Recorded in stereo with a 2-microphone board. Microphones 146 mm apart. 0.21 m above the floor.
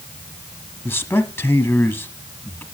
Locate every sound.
0.8 s a man speaking: 15° left (ahead or behind), 1.3 m